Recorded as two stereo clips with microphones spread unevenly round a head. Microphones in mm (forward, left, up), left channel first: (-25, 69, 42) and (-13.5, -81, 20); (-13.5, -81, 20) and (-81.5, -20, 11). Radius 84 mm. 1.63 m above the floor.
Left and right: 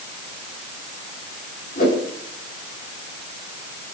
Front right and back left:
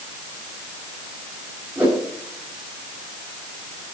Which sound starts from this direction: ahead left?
A whoosh, at 1.8 s.